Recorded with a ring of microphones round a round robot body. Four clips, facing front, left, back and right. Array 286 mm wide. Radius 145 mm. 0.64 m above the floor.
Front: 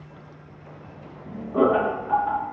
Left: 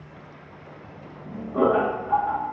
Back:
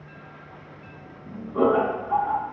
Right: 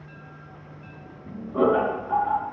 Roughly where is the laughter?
Ahead.